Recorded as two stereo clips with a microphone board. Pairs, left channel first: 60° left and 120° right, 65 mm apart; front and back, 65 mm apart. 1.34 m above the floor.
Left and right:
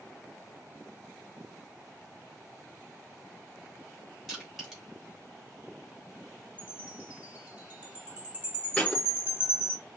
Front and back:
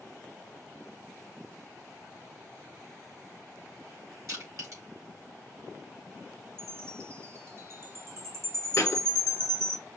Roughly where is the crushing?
Behind left.